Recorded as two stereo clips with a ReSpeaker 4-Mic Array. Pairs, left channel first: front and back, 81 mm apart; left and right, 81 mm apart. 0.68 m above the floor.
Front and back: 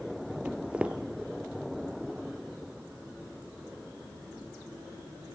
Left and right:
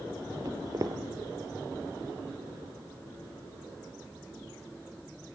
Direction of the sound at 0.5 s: 105° right.